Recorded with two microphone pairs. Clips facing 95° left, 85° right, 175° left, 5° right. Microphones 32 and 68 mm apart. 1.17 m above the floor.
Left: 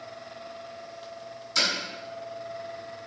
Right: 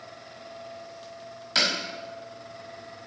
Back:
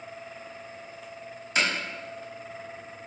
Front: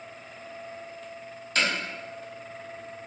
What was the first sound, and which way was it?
Hammering, 110° right.